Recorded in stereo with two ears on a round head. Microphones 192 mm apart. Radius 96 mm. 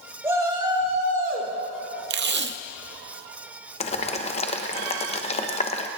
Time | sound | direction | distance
0.2 | a shout | 15° right (ahead or behind) | 3 m
2.1 | tape being pulled | 50° right (ahead or behind) | 0.5 m
3.8 | boiling | 30° left (ahead or behind) | 0.9 m